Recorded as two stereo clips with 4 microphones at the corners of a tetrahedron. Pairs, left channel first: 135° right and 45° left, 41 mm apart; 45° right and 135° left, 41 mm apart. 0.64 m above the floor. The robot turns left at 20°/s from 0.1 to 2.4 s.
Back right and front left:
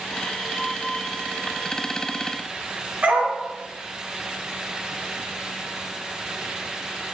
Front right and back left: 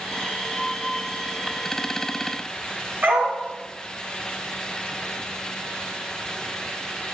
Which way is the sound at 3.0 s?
95° left.